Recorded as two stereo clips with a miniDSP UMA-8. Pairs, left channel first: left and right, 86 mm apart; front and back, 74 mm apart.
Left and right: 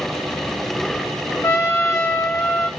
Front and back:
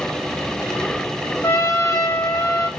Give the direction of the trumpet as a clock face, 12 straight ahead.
11 o'clock.